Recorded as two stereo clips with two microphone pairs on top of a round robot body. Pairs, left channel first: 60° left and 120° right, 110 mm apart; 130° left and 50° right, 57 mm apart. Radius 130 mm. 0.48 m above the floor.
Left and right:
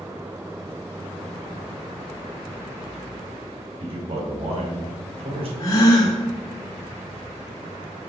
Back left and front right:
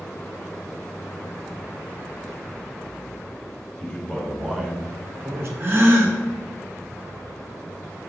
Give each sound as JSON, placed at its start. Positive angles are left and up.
{"t": 3.8, "sound": "a man speaking", "azimuth_deg": -160, "distance_m": 2.0}
{"t": 5.6, "sound": "a gasp", "azimuth_deg": 5, "distance_m": 1.4}